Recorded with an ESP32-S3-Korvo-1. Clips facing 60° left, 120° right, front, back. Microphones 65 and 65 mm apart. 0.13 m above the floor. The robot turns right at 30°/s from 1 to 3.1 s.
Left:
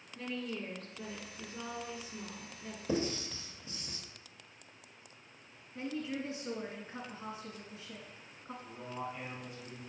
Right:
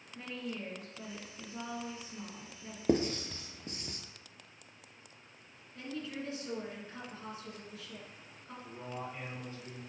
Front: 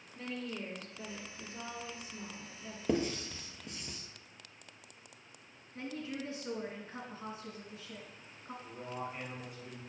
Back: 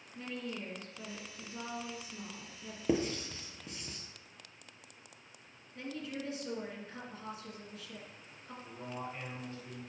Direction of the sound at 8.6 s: 80° right.